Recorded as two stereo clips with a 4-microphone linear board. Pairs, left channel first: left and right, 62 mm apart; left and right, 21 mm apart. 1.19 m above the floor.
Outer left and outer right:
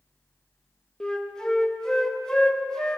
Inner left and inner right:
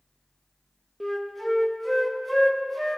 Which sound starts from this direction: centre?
A flute, at 1.0 s.